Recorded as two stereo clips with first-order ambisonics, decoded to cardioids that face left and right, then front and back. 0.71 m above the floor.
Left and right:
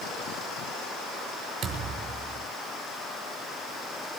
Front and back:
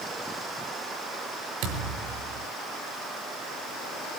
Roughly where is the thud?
Behind right.